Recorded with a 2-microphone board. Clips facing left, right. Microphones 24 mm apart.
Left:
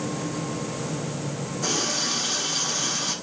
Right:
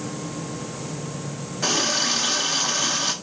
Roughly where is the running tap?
Right.